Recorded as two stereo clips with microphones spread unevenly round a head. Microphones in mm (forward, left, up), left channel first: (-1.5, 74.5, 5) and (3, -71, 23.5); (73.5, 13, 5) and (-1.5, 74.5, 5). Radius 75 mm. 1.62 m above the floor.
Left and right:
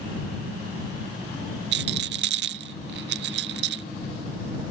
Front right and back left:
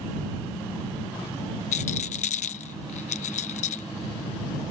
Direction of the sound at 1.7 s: 70° right.